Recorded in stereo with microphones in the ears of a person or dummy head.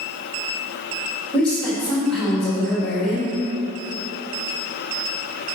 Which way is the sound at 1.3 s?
Centre (ahead or behind).